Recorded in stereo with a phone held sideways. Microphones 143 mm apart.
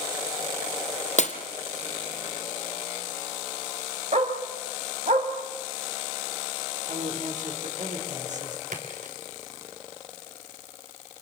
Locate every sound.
1.2 s breaking glass: 55° left (ahead or behind), 2.0 m
4.1 s a dog barking: 55° right (ahead or behind), 3.5 m
6.9 s a woman speaking: 60° right (ahead or behind), 4.5 m
8.7 s a splash: 65° right (ahead or behind), 3.5 m